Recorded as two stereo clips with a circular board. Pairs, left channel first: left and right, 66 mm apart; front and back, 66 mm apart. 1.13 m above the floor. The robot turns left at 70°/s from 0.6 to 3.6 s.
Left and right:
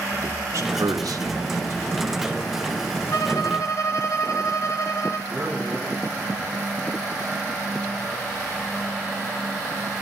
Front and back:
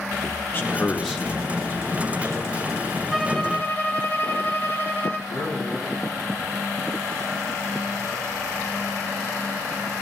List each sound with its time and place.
0.1 s a man speaking: 55° right, 1.7 m; by 2.3 s straight behind, 1.7 m
3.1 s a violin: 100° left, 1.6 m; by 5.2 s 65° left, 1.6 m
5.3 s a man speaking: 20° right, 10 m